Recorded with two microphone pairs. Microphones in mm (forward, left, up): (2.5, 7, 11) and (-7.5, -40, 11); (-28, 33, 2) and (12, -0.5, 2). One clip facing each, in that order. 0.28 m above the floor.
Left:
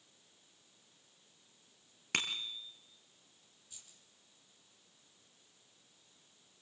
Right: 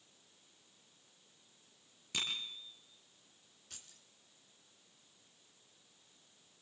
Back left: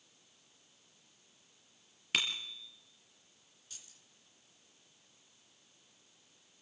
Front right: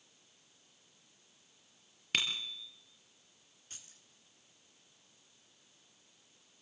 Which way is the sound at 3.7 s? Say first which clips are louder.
Right 4 dB, front right 2 dB; 90° right.